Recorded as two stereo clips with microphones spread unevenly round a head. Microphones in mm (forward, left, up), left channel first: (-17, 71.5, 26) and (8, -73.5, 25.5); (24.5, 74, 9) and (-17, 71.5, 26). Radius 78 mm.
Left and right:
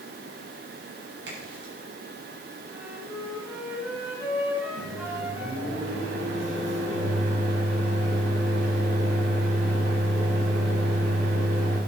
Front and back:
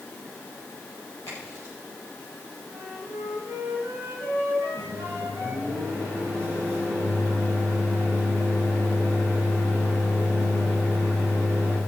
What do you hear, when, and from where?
1.3 s a crack: 65° right, 8.5 m
2.7 s a flute: 160° right, 7.5 m
4.8 s a microwave: 85° right, 7 m